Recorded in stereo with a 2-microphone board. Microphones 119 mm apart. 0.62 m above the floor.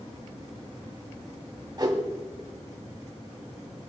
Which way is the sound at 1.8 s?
40° right (ahead or behind).